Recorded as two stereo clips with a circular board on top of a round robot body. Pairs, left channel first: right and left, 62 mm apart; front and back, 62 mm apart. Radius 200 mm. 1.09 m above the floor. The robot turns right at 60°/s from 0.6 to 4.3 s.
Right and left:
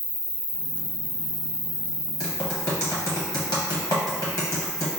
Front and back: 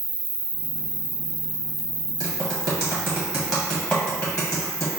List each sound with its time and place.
0.0 s an insect: 175° left, 1.9 m; by 5.0 s 40° left, 1.9 m
2.2 s typing on a keyboard: 170° right, 0.7 m; by 4.9 s 45° right, 0.7 m